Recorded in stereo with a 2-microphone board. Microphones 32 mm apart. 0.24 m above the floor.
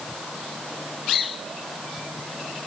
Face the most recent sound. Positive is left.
No sound to turn to.